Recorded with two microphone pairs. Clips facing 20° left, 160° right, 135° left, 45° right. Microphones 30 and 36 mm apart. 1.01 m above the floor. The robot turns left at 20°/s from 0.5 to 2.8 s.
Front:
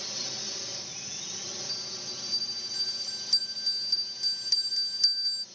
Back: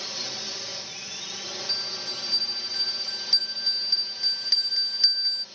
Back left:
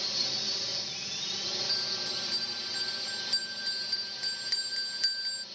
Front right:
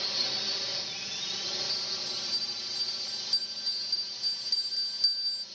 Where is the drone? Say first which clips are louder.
Back 3 dB, front right 1 dB; 115° right; by 5.5 s 160° right.